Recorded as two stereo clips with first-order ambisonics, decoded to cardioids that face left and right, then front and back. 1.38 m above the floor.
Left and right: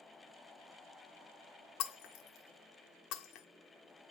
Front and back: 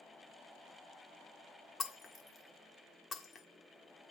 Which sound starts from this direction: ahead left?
Breaking glass, at 1.8 s.